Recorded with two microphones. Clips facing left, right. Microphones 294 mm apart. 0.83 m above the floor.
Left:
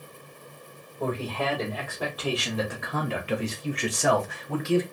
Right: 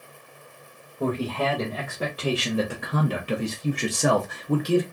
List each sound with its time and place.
1.0 s a man speaking: 15° right (ahead or behind), 1.5 m; by 4.8 s 40° right (ahead or behind), 1.0 m